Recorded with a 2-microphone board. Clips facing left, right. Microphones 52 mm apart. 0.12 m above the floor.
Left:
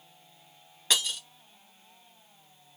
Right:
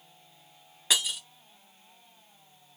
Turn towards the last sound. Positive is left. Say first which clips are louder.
# even
turn(degrees=-5)  # may be behind; listen again after turning